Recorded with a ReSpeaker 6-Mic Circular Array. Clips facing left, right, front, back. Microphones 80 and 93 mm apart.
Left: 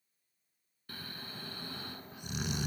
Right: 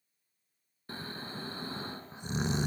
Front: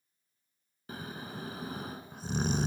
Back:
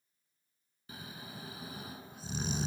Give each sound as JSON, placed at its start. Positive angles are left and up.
{"t": 0.9, "sound": "snoring", "azimuth_deg": -30, "distance_m": 0.6}